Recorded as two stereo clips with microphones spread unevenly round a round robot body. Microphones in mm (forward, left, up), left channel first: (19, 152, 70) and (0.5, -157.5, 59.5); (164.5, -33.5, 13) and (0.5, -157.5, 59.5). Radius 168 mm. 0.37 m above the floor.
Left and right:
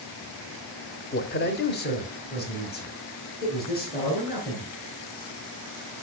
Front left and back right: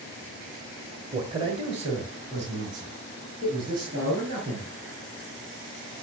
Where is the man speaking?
140° left, 1.2 m; by 4.7 s 150° left, 6.5 m.